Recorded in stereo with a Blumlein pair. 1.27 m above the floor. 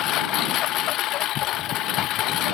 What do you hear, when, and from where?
0.0 s a lawn mower: 35° left